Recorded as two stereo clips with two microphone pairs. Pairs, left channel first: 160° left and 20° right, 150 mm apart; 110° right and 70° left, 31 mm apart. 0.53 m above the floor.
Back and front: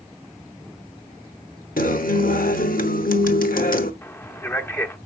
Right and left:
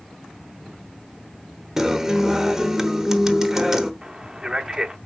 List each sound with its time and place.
1.8 s a guitar: 150° left, 0.9 m
4.0 s a man speaking: 115° left, 0.6 m